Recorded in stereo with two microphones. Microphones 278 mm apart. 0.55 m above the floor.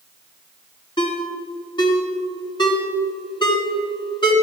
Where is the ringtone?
15° left (ahead or behind), 3 m.